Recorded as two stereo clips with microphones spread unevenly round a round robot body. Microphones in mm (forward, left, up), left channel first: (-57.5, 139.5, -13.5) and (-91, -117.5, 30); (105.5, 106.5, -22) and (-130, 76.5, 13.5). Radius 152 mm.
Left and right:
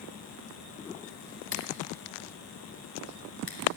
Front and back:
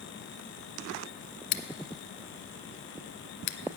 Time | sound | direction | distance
1.5 | scissors | 5° right | 0.8 m